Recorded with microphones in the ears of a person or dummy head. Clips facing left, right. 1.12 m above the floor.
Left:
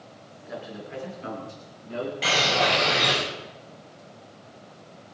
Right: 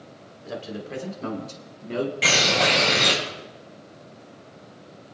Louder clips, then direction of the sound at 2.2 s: Left 2 dB; 40° right (ahead or behind).